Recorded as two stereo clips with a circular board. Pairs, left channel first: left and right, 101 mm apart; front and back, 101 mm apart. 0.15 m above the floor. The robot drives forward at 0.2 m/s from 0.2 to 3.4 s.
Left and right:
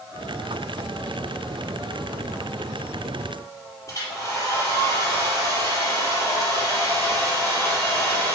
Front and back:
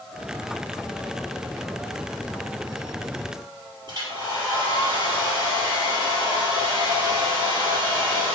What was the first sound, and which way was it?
A hair dryer, 145° left.